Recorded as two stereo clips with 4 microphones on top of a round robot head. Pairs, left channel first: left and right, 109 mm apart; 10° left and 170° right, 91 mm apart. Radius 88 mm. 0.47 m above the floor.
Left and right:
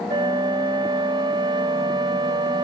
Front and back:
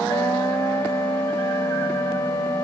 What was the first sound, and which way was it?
A flute, 50° right.